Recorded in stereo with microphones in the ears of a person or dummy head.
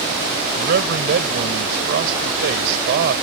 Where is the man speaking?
60° right (ahead or behind).